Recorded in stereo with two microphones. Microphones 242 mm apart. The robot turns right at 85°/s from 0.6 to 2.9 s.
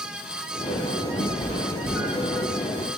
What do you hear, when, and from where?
1.2 s a cat meowing: 60° left (ahead or behind), 2.5 m; by 2.5 s 50° right (ahead or behind), 2.5 m